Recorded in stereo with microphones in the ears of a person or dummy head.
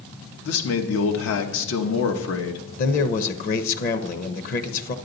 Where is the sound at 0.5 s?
80° left, 1.1 m.